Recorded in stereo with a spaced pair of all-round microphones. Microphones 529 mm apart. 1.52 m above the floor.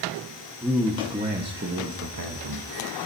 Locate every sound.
0.6 s a man speaking: centre (ahead or behind), 1.5 m; by 2.7 s 50° right (ahead or behind), 1.2 m